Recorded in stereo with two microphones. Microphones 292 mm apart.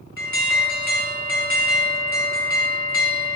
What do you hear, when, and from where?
0.2 s an alarm: 45° left (ahead or behind), 1.5 m